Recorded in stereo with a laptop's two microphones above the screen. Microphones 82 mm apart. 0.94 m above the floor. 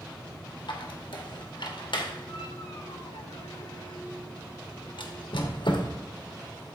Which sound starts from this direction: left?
A squeak, at 0.7 s.